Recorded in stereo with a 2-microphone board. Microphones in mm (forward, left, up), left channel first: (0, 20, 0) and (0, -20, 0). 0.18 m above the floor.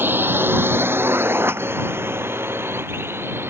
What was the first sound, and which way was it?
A drone, 60° right (ahead or behind).